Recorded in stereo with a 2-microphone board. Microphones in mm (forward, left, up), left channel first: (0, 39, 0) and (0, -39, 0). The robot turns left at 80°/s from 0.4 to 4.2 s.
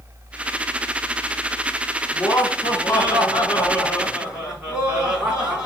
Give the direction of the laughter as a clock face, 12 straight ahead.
7 o'clock.